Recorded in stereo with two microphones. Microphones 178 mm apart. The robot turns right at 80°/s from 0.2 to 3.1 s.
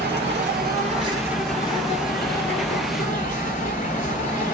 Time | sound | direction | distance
0.0 | an insect | 100° right | 2 m